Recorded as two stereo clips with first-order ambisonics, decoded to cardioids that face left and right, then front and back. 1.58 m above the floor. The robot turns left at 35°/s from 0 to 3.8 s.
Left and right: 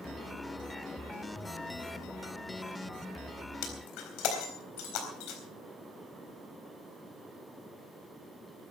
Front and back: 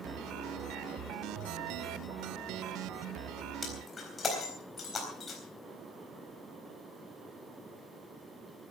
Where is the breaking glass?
75° left, 4 m; by 5.4 s 70° left, 4 m.